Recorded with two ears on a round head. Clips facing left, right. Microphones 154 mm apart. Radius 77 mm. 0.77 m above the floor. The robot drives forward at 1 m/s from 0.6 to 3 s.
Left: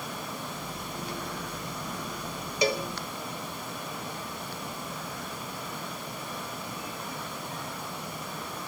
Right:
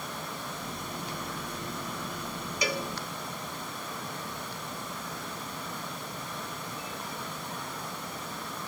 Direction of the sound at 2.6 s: 25° left (ahead or behind).